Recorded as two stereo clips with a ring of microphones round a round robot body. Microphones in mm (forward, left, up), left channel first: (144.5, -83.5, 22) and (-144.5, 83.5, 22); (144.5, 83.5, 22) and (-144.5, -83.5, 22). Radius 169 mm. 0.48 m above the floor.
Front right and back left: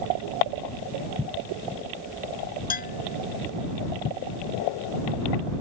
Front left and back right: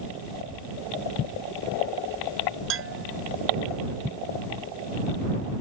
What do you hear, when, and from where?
2.7 s a bell: 95° right